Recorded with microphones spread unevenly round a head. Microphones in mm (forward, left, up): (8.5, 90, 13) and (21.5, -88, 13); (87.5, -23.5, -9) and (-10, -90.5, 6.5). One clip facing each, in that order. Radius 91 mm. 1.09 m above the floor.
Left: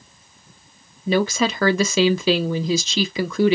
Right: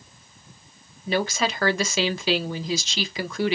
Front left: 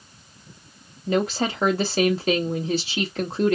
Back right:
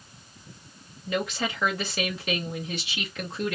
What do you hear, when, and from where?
1.1 s a woman speaking: 105° left, 0.8 m